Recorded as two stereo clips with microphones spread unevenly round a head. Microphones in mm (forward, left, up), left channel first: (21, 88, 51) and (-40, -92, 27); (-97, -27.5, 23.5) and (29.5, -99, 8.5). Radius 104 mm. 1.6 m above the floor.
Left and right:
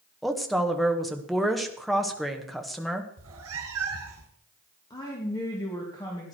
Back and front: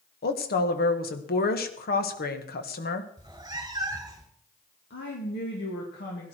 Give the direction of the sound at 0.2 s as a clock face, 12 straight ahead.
7 o'clock.